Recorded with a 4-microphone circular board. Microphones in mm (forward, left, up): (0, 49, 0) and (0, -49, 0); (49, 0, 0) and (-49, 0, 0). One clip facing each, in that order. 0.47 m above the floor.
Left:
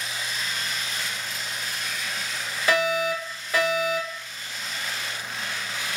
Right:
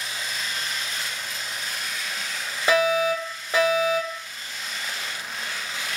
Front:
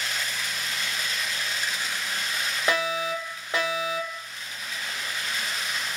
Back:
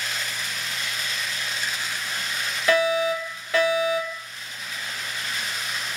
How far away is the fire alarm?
About 2 m.